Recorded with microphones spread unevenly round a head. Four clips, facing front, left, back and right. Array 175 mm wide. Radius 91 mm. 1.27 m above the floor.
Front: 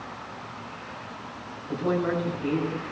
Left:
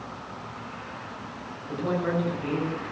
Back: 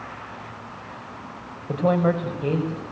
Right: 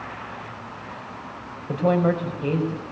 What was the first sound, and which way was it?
A woman speaking, 145° right.